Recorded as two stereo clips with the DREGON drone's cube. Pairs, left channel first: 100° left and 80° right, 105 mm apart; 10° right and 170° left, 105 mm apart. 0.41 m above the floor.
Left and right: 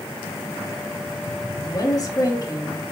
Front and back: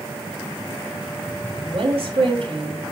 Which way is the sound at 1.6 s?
150° left.